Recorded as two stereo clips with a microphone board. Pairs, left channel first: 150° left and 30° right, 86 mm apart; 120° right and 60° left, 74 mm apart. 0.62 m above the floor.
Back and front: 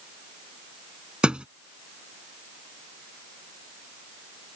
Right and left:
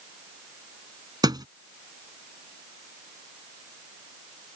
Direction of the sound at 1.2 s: 50° left.